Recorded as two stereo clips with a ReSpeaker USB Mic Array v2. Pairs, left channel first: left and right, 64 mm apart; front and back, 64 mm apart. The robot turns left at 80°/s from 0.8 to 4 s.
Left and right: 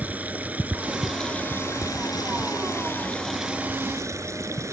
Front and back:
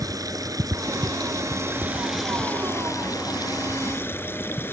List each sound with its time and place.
0.0 s running water: 155° right; by 4.7 s 50° right